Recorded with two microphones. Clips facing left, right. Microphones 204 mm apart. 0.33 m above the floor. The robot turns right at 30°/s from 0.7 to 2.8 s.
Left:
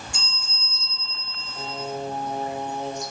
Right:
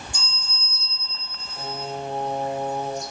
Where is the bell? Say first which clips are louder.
Even; 90° left, 3.5 m; by 1.9 s 125° left, 3.5 m.